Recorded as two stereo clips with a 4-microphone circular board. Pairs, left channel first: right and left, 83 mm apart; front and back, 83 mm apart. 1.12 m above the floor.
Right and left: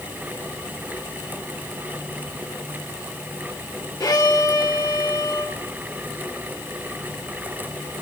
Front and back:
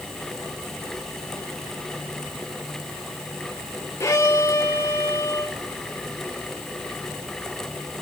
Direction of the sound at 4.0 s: 55° right.